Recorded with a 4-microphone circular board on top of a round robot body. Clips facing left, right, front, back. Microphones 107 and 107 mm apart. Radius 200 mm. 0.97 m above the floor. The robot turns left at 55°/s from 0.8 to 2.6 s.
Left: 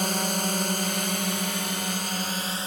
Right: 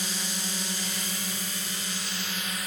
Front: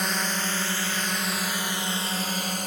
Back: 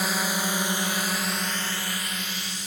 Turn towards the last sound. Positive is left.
turn(degrees=30)